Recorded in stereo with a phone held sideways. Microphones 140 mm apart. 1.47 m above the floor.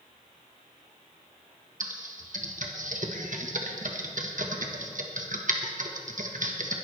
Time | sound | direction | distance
1.8 | typing on a keyboard | 65° right (ahead or behind) | 1.2 m